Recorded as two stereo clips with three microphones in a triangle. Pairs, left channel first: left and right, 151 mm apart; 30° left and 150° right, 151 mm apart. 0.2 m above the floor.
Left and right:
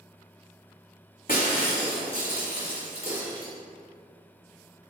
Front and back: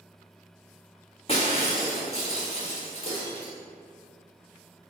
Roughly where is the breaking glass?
Left.